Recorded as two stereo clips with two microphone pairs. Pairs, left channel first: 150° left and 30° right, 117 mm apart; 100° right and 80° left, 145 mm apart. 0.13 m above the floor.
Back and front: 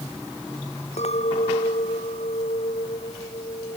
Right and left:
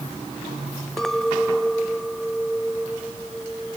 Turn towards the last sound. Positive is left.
turn(degrees=170)